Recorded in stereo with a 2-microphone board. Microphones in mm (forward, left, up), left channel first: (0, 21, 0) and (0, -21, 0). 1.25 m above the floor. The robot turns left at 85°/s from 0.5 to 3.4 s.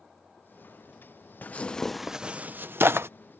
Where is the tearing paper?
45° left (ahead or behind); by 3.1 s 75° right (ahead or behind).